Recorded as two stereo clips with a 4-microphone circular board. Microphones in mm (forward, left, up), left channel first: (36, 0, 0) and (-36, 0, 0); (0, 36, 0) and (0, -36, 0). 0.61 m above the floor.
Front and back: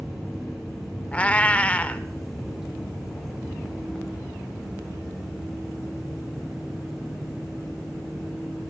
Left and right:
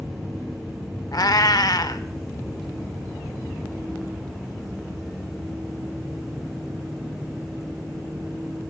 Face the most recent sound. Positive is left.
turn(degrees=70)